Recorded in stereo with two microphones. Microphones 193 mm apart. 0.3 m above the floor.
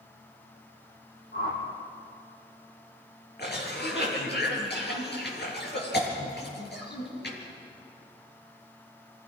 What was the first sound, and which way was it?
A whoosh, 50° left (ahead or behind).